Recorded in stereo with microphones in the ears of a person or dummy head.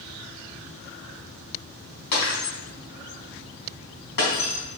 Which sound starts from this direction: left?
Breaking glass, at 2.1 s.